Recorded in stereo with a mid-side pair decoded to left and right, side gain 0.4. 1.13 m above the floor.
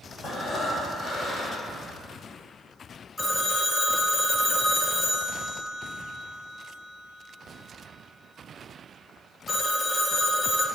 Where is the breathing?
65° left, 1.6 m.